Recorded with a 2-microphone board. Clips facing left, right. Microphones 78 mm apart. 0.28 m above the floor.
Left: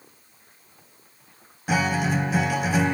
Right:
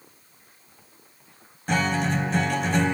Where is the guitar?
5° left (ahead or behind), 1.1 m.